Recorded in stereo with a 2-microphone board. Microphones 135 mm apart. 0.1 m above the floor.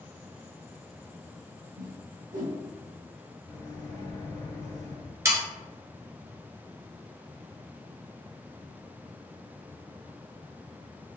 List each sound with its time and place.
1.8 s a whoosh: 75° right (ahead or behind), 1.4 m
3.5 s a microwave: 30° left (ahead or behind), 1.1 m
5.2 s sawing: 20° right (ahead or behind), 0.8 m